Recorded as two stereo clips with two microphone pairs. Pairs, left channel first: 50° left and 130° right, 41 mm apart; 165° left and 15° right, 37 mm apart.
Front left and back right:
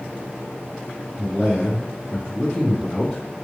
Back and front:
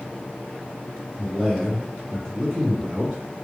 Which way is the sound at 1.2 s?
100° left.